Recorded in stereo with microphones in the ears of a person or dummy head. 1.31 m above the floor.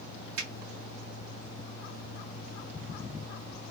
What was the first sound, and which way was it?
A finger snap, 75° right (ahead or behind).